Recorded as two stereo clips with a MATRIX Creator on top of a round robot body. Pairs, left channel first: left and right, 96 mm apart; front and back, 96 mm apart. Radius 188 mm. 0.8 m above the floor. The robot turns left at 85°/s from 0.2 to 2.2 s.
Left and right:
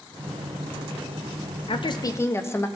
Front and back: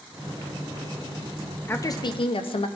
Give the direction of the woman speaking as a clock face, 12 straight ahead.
10 o'clock.